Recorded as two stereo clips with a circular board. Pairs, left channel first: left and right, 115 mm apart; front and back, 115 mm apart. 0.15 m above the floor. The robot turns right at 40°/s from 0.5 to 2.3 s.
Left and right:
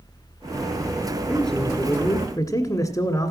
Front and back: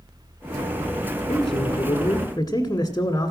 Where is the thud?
No thud in this recording.